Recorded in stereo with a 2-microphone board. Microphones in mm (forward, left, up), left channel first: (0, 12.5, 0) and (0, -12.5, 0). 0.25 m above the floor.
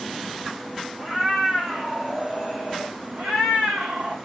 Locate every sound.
1.0 s a cat meowing: centre (ahead or behind), 3 m; by 3.0 s 5° right (ahead or behind), 2 m
3.2 s a cat meowing: 60° right (ahead or behind), 1.4 m